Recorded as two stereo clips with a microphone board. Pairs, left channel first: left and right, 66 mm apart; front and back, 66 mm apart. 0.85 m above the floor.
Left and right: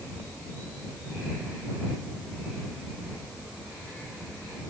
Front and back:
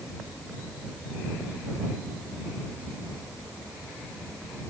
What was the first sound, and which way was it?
Only background noise.